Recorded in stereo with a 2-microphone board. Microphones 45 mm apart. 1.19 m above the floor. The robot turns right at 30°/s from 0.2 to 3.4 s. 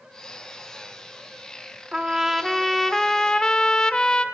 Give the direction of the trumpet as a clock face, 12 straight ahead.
1 o'clock.